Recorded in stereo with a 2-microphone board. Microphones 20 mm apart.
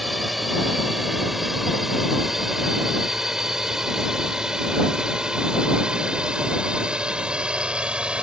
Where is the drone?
Centre (ahead or behind); by 8.2 s 60° right (ahead or behind).